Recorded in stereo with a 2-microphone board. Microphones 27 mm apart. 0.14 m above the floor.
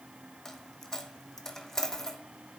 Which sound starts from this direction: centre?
A dropped coin, at 0.5 s.